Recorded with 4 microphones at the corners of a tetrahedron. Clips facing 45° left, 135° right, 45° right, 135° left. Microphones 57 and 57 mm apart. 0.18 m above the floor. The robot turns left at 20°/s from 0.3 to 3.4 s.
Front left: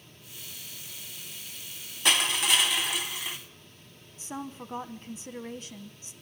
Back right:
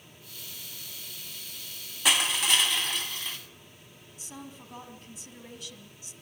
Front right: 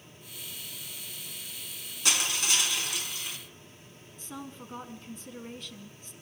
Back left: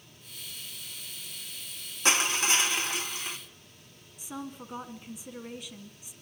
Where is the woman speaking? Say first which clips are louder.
Front left 7 dB, back left 3 dB; 60° left, 1.1 m.